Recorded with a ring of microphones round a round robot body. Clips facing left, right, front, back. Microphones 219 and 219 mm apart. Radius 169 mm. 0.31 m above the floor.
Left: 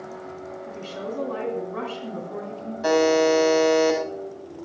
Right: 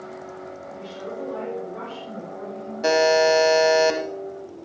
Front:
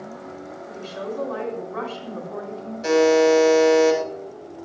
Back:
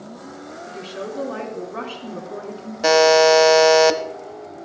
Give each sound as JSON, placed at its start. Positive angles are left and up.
{"t": 0.7, "sound": "a woman speaking", "azimuth_deg": 120, "distance_m": 2.5}
{"t": 2.8, "sound": "a buzzer", "azimuth_deg": -160, "distance_m": 0.8}